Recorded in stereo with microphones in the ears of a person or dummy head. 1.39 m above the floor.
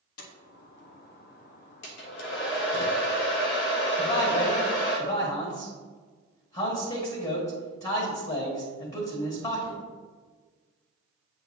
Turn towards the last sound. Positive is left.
turn(degrees=40)  # may be behind; listen again after turning